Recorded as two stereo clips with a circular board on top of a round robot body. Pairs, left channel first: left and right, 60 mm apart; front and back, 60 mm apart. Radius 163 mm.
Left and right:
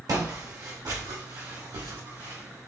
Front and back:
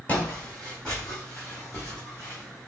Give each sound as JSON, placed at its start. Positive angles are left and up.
{"t": 0.1, "sound": "footsteps", "azimuth_deg": -70, "distance_m": 1.4}